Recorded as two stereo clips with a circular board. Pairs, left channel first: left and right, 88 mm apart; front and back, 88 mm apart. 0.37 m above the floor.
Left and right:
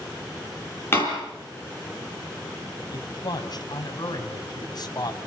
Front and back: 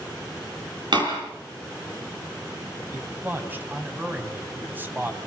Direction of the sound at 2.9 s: 115° left.